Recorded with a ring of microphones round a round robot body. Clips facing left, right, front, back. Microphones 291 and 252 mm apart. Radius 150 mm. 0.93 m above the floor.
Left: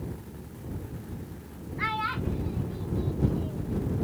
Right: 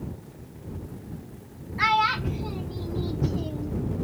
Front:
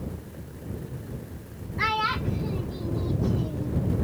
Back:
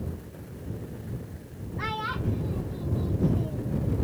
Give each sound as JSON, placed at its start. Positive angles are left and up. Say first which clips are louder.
{"t": 1.8, "sound": "a child speaking", "louder": "right 4 dB, front 2 dB", "azimuth_deg": -65}